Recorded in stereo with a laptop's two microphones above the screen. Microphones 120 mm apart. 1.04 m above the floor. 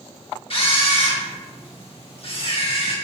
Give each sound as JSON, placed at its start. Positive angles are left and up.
{"t": 0.5, "sound": "a camera shutter", "side_deg": 50, "distance_m": 0.9}